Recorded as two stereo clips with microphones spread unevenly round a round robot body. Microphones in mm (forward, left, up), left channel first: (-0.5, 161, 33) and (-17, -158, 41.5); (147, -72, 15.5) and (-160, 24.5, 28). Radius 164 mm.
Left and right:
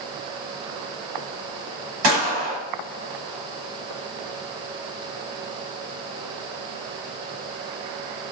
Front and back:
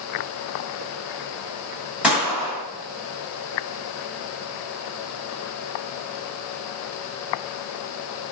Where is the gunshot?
110° right, 1.3 m.